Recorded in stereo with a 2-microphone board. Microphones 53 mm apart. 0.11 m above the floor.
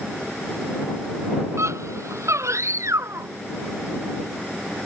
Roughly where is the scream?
Right.